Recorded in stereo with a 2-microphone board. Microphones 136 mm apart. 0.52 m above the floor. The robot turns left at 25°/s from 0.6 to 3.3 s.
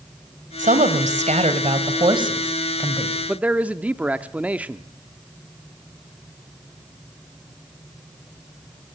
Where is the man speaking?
10° right (ahead or behind), 0.7 m.